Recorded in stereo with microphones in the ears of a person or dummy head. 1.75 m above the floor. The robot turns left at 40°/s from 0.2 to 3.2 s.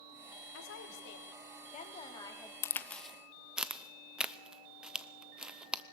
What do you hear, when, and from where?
0.5 s a woman speaking: 90° left, 3 m; by 2.5 s 10° left, 3 m
2.6 s a crack: 15° left (ahead or behind), 0.7 m; by 5.8 s 5° right (ahead or behind), 0.7 m